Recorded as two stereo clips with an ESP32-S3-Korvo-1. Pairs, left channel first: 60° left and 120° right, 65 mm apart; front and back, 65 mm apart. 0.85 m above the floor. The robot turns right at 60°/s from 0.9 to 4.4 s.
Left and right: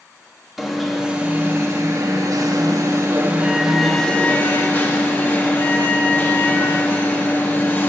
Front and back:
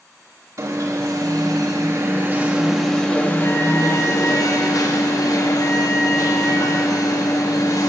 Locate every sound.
0.6 s an alarm: 155° left, 1.3 m; by 7.9 s 5° left, 1.3 m